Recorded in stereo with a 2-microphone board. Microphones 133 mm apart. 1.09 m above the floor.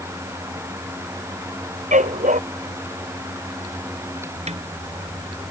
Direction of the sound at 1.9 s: 70° right (ahead or behind).